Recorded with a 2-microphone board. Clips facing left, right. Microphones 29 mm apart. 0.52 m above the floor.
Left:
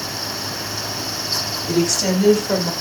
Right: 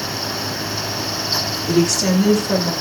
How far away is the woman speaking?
About 1.1 m.